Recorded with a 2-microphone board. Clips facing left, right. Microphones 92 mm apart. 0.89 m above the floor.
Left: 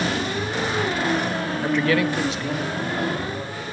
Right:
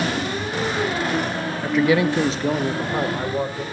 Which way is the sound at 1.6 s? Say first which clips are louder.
Right 3 dB; 15° left (ahead or behind).